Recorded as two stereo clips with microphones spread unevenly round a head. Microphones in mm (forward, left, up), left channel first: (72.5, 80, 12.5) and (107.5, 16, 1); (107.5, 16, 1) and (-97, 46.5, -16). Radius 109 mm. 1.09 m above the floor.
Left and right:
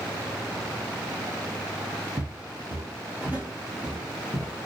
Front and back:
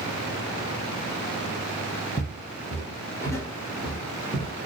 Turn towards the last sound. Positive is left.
turn(degrees=50)